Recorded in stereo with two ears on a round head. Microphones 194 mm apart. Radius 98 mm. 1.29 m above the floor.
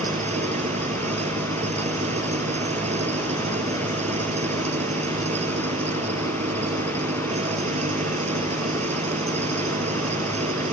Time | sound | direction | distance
0.0 | an engine running | 35° right (ahead or behind) | ?